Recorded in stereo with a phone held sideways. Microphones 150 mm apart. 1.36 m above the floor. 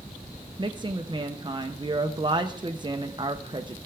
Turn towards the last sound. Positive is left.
turn(degrees=-30)  # may be behind; listen again after turning